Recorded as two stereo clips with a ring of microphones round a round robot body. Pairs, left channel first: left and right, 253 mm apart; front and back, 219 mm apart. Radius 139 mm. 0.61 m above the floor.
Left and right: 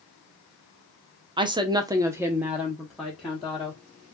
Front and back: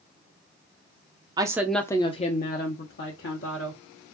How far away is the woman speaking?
About 0.6 m.